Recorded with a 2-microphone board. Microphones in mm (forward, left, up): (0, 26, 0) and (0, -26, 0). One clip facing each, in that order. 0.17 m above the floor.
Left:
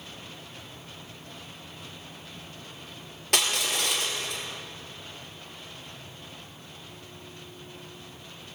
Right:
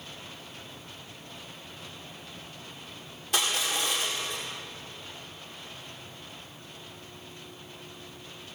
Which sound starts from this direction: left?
Crushing, at 3.3 s.